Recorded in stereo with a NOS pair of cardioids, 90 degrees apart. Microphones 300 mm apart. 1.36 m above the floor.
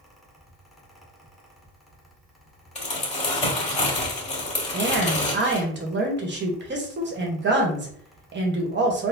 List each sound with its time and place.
0.0 s a fan: straight ahead, 1.1 m
2.8 s crumpling: 25° left, 2 m
4.7 s a woman speaking: 40° right, 1.2 m